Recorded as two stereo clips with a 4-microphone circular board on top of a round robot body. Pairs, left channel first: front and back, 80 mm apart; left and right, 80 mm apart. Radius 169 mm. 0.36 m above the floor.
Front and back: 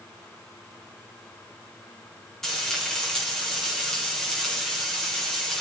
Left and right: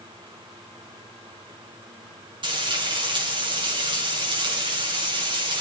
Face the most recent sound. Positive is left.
turn(degrees=-85)